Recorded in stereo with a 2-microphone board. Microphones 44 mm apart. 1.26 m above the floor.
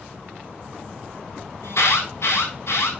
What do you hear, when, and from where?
1.6 s an alarm: 85° left, 7 m